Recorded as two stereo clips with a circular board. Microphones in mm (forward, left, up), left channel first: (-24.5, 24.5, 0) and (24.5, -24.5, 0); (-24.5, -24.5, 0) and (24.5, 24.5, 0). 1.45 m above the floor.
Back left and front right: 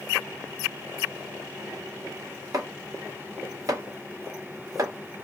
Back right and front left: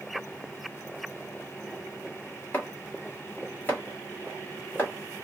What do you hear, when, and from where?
2.5 s chopping: 75° right, 1.8 m